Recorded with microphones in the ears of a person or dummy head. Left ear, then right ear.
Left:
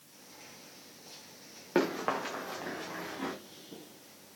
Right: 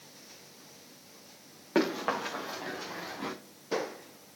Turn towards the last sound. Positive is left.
turn(degrees=5)  # may be behind; listen again after turning